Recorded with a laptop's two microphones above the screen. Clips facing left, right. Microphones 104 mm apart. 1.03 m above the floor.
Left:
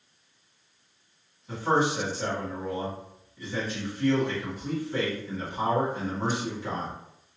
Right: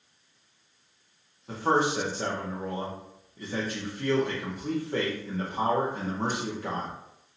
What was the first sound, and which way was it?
A man speaking, 50° right (ahead or behind).